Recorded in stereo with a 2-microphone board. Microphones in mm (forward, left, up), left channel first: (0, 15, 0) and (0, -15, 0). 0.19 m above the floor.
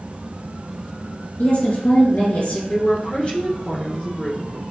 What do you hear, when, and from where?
1.4 s a woman speaking: 65° left (ahead or behind), 3 m
2.7 s a woman speaking: 40° left (ahead or behind), 3 m